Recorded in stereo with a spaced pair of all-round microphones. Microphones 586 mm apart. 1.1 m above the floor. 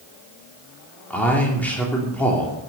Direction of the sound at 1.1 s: Centre (ahead or behind).